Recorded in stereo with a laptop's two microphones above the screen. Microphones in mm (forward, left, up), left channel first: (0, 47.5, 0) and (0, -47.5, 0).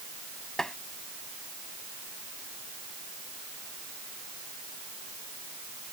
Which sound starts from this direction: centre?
Tapping, at 0.6 s.